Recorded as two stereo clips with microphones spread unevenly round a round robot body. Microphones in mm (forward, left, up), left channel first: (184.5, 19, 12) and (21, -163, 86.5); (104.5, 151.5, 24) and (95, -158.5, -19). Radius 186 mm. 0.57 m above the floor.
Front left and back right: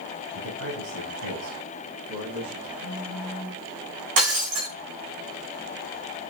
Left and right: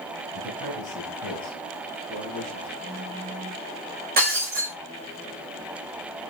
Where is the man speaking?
150° right, 4.5 m; by 2.7 s 145° right, 8 m.